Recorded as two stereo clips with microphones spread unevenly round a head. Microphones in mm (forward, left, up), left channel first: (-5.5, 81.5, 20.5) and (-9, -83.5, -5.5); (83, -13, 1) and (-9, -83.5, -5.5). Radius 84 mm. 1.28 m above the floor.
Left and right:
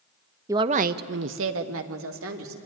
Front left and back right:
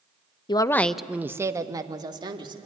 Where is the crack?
No crack in this recording.